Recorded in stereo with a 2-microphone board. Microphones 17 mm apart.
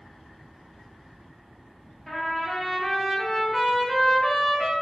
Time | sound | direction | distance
2.1 | a trumpet | 10° left (ahead or behind) | 0.9 m